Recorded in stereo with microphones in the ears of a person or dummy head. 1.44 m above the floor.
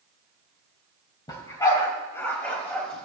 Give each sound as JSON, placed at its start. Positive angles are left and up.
{"t": 1.3, "sound": "a dog barking", "side_deg": 25, "distance_m": 3.0}